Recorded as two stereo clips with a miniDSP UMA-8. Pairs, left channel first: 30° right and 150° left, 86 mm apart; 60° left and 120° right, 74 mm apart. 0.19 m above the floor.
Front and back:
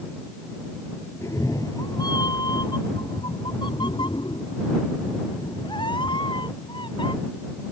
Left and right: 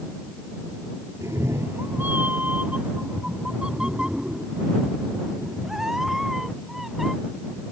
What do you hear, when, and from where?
1.2 s a cat meowing: 80° right; by 7.1 s 35° right